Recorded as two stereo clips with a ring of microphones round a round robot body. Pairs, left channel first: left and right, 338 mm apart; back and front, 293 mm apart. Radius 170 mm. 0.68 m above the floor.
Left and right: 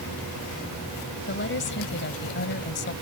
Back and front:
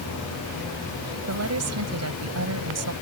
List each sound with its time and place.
1.3 s a woman speaking: 30° left